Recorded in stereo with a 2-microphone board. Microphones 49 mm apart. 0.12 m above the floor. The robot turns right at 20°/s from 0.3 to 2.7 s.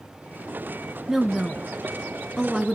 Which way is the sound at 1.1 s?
10° right (ahead or behind).